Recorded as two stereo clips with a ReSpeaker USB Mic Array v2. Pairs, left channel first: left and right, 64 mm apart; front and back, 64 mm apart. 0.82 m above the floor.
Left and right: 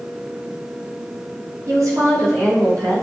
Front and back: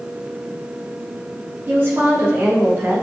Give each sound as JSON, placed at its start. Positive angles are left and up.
{"t": 1.7, "sound": "a woman speaking", "azimuth_deg": -120, "distance_m": 6.0}